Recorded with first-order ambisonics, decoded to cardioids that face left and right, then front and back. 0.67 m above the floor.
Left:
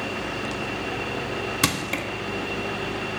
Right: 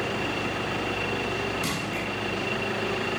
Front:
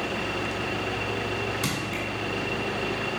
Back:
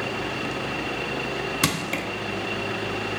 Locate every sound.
1.6 s crushing: 125° left, 0.9 m